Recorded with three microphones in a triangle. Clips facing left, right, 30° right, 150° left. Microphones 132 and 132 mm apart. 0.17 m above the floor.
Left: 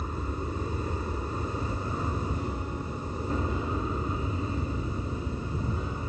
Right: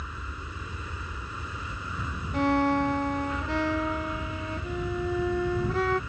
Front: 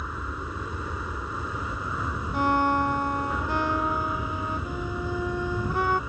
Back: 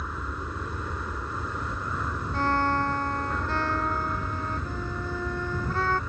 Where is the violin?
105° right.